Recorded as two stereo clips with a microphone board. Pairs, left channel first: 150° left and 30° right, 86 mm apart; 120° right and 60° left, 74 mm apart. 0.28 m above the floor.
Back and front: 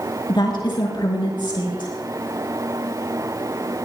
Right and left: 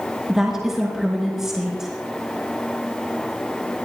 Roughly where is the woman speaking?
Behind left.